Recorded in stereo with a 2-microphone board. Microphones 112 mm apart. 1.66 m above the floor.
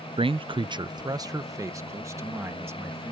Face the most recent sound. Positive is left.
turn(degrees=-25)  # may be behind; listen again after turning